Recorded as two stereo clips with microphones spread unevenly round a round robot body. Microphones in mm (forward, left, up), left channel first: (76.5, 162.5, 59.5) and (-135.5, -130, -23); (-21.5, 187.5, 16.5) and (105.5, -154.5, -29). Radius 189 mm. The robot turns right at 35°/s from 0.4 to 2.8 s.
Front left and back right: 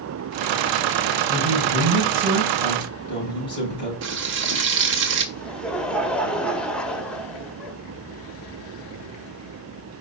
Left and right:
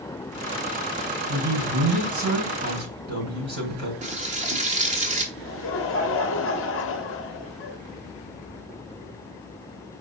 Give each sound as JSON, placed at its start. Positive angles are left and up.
{"t": 1.3, "sound": "a man speaking", "azimuth_deg": -80, "distance_m": 5.0}
{"t": 4.0, "sound": "frying", "azimuth_deg": -125, "distance_m": 1.2}
{"t": 5.3, "sound": "laughter", "azimuth_deg": 155, "distance_m": 1.1}